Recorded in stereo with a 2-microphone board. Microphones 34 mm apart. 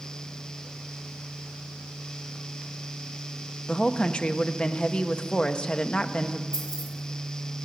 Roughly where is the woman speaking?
Left.